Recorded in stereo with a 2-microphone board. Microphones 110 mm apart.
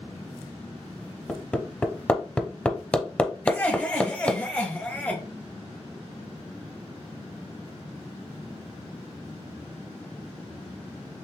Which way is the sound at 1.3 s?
10° left (ahead or behind).